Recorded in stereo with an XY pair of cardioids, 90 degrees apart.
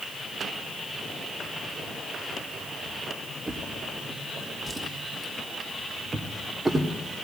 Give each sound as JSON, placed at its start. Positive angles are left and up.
{"t": 3.5, "sound": "a drawer", "azimuth_deg": -25, "distance_m": 2.0}